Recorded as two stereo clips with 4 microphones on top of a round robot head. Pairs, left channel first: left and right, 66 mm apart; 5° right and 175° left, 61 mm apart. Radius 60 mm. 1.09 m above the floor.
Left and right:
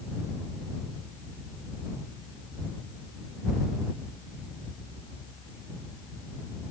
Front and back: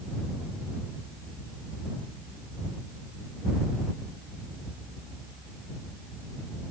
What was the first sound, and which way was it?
Only background noise.